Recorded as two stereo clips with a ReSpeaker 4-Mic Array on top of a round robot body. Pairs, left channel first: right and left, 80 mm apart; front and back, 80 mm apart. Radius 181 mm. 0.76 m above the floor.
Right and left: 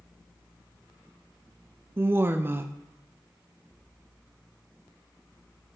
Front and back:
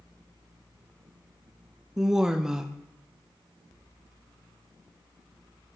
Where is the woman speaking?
105° left, 0.6 m.